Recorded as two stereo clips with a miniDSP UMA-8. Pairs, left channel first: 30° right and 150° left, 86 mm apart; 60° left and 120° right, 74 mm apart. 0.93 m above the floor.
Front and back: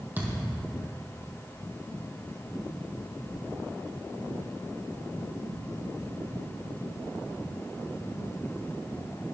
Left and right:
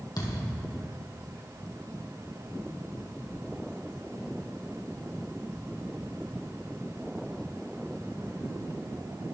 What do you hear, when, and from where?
0.2 s a thud: 80° left, 3 m